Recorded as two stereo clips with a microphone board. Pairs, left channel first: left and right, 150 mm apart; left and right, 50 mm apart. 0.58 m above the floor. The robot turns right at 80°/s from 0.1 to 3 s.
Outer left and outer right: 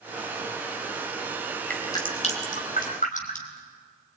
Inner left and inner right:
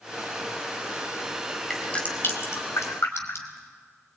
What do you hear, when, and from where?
1.7 s dripping: 10° left (ahead or behind), 3.5 m; by 3.6 s 65° left (ahead or behind), 3.5 m